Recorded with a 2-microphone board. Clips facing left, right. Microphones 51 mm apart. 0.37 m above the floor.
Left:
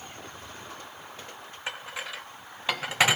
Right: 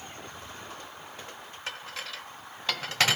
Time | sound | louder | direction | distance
1.7 | dishes clattering | left 3 dB | 15° left (ahead or behind) | 0.7 m